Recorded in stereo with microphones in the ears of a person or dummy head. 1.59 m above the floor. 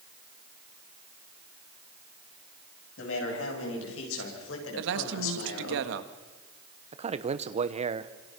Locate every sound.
3.0 s a man speaking: 80° left, 10 m; by 5.8 s 90° left, 5.5 m
4.8 s a man speaking: 75° right (ahead or behind), 1.7 m
6.9 s a man speaking: 30° right (ahead or behind), 1.1 m